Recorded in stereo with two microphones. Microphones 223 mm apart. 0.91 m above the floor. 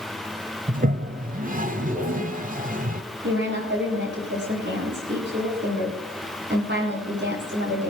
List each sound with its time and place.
0.7 s a toilet flushing: 40° right (ahead or behind), 0.9 m
3.2 s a woman speaking: 55° right (ahead or behind), 9.5 m